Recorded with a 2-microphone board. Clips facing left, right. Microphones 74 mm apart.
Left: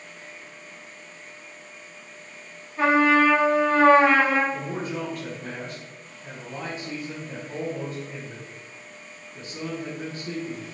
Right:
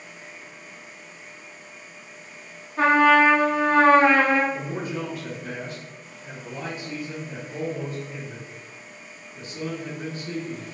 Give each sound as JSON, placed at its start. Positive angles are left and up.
{"t": 2.8, "sound": "a trumpet", "side_deg": -60, "distance_m": 1.4}
{"t": 4.5, "sound": "a man speaking", "side_deg": 75, "distance_m": 1.3}